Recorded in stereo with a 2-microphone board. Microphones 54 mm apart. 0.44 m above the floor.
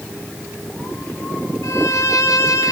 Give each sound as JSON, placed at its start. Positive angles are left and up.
{"t": 1.6, "sound": "a violin", "side_deg": 70, "distance_m": 2.5}